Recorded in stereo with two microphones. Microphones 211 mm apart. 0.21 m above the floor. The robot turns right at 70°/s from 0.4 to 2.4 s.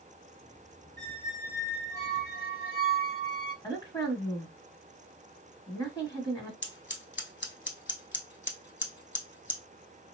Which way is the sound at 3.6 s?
20° left (ahead or behind).